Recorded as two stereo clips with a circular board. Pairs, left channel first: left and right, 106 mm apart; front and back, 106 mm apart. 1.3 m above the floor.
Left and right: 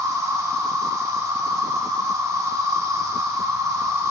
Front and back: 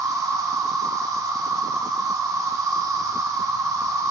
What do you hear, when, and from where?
0.0 s an insect: 135° right, 0.8 m